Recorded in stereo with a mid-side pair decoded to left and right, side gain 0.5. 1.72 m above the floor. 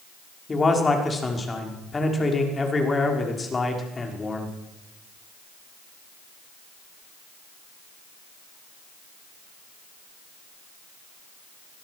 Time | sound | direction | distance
0.5 | a man speaking | 25° left | 6 m